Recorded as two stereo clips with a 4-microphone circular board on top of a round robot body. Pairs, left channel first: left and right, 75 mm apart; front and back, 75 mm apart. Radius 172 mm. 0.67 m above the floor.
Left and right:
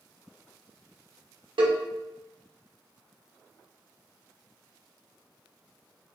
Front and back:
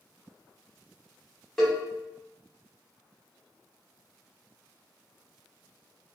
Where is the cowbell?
85° right, 1.2 m.